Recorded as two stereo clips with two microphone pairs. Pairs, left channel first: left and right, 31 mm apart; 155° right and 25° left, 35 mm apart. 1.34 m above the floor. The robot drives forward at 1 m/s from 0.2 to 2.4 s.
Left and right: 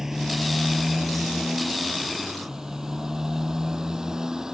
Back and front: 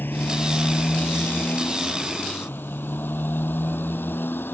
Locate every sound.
0.0 s a motorcycle: 165° right; by 4.5 s 160° right